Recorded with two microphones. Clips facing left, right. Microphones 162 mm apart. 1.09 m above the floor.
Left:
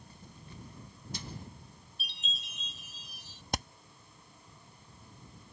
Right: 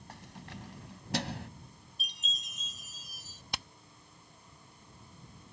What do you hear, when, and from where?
0.1 s keys jangling: 85° right; by 1.5 s 75° right (ahead or behind)
2.0 s a chime: 40° right (ahead or behind)
3.5 s hammering: 45° left (ahead or behind)